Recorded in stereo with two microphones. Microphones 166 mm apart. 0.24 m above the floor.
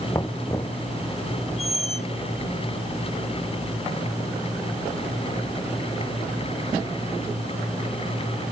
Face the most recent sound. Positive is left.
turn(degrees=40)  # may be behind; listen again after turning